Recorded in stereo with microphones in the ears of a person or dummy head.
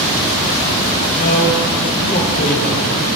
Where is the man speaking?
35° left (ahead or behind), 0.6 m.